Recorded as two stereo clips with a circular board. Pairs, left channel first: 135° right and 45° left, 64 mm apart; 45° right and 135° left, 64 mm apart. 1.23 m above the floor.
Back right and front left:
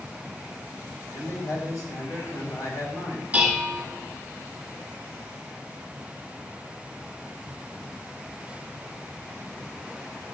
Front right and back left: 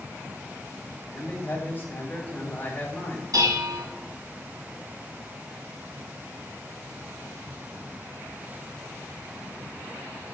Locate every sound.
1.1 s a man speaking: 110° right, 5.5 m
3.3 s dishes clattering: 115° left, 5.5 m